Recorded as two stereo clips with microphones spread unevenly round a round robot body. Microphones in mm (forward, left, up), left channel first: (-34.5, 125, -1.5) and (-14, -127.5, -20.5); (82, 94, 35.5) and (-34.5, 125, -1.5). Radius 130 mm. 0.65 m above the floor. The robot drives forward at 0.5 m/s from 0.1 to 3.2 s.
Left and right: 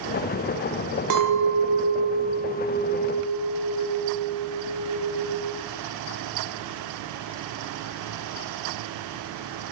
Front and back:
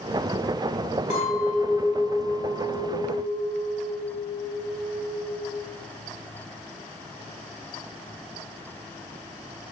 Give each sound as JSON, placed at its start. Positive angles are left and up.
{"t": 1.1, "sound": "a clink", "azimuth_deg": -80, "distance_m": 0.5}